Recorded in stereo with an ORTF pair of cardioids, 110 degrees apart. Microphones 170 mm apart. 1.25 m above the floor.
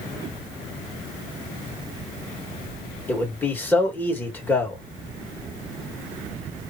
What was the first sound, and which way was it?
A man speaking, 10° left.